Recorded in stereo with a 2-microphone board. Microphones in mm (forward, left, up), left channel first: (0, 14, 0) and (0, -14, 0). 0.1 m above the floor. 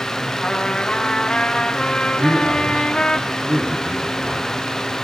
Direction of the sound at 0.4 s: 25° left (ahead or behind).